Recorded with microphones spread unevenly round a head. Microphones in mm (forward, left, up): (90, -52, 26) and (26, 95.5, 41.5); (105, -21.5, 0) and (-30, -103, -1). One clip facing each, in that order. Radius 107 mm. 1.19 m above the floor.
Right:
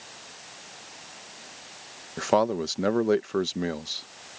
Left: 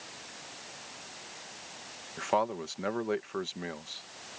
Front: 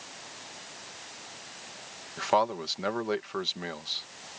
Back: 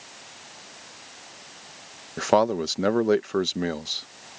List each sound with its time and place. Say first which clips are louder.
2.2 s a man speaking: right 7 dB, back 6 dB; 115° right